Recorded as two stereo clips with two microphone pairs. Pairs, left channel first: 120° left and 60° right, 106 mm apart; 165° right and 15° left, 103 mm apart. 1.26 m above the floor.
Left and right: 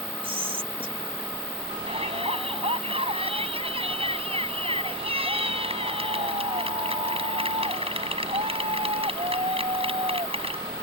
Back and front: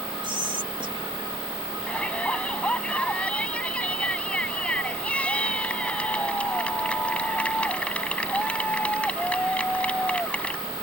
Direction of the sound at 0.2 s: 25° right.